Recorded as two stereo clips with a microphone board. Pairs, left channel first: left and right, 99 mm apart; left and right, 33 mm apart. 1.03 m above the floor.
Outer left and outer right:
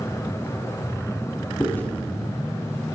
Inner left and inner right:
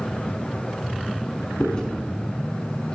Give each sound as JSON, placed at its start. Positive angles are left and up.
{"t": 1.6, "sound": "chewing", "side_deg": 20, "distance_m": 5.5}